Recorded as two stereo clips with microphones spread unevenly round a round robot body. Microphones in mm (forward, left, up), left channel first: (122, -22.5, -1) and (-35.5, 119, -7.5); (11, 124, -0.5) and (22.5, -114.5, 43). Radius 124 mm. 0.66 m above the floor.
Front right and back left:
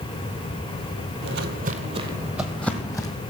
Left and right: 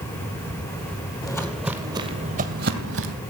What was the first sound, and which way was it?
Footsteps, 175° left.